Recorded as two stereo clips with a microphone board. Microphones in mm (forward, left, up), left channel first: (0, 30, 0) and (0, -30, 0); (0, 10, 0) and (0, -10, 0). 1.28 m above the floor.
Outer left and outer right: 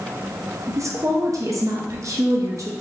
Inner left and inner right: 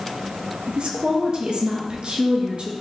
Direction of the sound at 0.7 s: 60° right (ahead or behind).